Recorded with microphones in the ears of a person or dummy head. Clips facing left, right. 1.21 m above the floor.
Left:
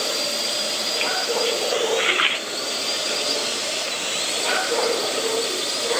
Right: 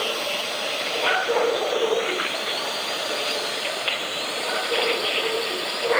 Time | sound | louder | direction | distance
0.0 | a drone | even | 25° left (ahead or behind) | ?